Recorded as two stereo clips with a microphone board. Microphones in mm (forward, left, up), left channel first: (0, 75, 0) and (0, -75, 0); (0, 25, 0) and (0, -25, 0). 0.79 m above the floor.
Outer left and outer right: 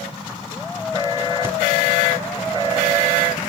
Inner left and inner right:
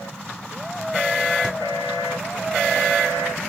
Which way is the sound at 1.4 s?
15° right (ahead or behind).